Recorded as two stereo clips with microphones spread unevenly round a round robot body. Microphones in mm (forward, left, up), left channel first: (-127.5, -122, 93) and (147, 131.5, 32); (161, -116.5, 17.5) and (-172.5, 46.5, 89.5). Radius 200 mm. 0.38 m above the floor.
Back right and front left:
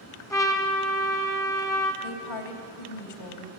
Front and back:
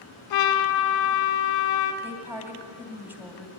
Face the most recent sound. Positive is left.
turn(degrees=-115)